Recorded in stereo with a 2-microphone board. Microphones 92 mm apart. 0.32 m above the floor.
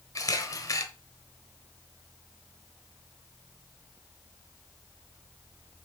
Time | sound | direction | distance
0.1 | a camera shutter | 40° left (ahead or behind) | 0.9 m